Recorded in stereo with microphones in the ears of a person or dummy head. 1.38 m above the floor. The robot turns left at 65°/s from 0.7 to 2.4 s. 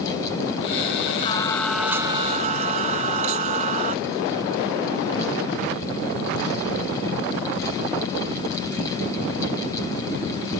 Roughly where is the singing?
Ahead left.